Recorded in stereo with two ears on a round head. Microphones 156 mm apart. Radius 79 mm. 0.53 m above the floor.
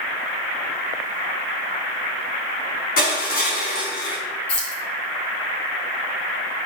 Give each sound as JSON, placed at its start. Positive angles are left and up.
{"t": 3.0, "sound": "crushing", "side_deg": 50, "distance_m": 4.0}
{"t": 4.5, "sound": "keys jangling", "side_deg": 70, "distance_m": 4.5}